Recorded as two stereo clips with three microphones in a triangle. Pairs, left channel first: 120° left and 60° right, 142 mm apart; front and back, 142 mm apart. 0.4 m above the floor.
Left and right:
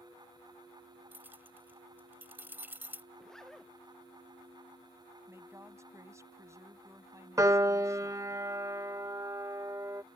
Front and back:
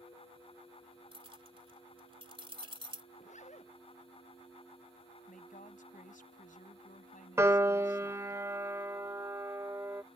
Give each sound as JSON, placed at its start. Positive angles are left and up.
{"t": 1.1, "sound": "keys jangling", "azimuth_deg": -135}
{"t": 3.1, "sound": "a zipper", "azimuth_deg": 35}
{"t": 5.3, "sound": "a woman speaking", "azimuth_deg": 10}
{"t": 7.4, "sound": "a piano", "azimuth_deg": -120}